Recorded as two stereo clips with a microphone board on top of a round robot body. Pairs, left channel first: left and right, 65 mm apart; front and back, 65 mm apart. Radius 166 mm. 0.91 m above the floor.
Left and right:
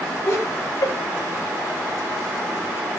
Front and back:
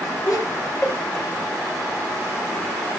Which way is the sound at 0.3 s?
45° left.